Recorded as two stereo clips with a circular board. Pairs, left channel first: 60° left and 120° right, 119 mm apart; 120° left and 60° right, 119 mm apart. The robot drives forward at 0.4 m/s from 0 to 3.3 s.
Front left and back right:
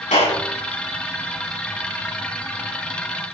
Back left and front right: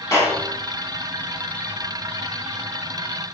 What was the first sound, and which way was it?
A clap, 55° left.